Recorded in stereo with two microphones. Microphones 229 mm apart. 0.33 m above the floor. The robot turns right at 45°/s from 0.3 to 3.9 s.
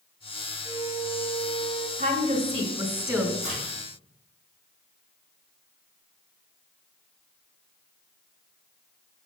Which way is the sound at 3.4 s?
65° right (ahead or behind).